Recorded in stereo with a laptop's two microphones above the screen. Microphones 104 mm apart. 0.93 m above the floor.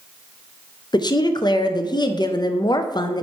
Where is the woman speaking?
45° left (ahead or behind), 0.5 m.